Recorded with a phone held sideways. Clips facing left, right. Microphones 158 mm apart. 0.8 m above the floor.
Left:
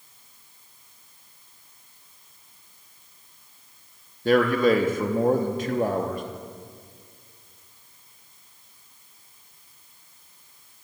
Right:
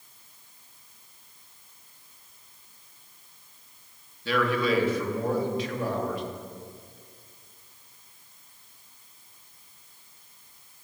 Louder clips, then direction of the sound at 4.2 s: Left 6 dB; 50° left (ahead or behind).